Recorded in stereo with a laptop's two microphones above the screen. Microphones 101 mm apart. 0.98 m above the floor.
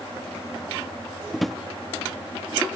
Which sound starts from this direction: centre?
A drawer, at 1.3 s.